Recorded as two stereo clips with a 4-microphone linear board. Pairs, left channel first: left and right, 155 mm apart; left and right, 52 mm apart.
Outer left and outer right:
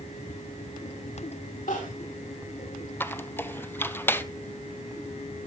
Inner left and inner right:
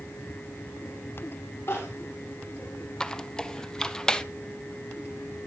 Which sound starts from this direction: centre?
A squeak, at 3.0 s.